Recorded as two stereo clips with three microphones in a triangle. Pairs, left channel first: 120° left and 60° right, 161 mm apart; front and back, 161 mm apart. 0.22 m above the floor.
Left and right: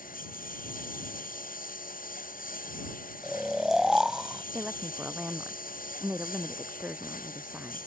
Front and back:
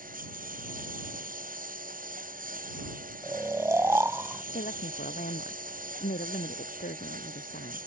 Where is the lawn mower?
150° left.